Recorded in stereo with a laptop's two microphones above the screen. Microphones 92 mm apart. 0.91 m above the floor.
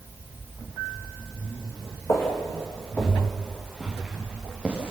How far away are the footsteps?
About 4 m.